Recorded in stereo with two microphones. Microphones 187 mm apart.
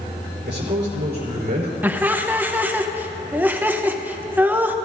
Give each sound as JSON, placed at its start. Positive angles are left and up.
{"t": 0.5, "sound": "a man speaking", "side_deg": -60, "distance_m": 3.5}
{"t": 1.8, "sound": "laughter", "side_deg": -10, "distance_m": 0.8}